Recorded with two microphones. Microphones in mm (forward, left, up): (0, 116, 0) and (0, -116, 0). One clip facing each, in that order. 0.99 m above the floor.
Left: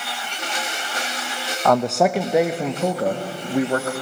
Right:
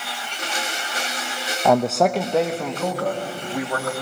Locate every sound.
1.6 s a man speaking: 10° right (ahead or behind), 0.6 m; by 3.9 s 30° left (ahead or behind), 1.6 m